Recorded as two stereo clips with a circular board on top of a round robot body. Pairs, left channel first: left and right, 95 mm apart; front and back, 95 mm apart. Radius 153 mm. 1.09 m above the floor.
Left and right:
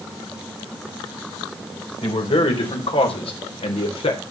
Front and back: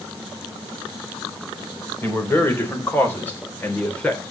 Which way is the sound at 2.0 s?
70° left.